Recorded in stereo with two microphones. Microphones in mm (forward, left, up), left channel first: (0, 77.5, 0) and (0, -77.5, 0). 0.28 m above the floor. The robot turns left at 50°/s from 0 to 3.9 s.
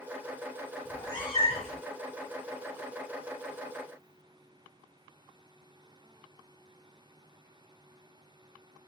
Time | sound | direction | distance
0.8 | a cat meowing | 165° left | 0.7 m